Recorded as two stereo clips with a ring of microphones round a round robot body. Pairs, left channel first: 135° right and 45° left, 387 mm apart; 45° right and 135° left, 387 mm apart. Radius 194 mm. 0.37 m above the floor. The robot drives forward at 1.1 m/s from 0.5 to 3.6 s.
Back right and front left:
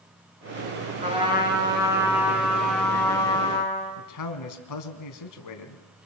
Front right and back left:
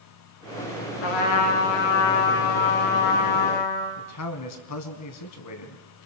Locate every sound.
1.0 s a trumpet: 30° right, 5 m; by 4.0 s 60° right, 3 m
4.0 s a man speaking: 90° right, 3 m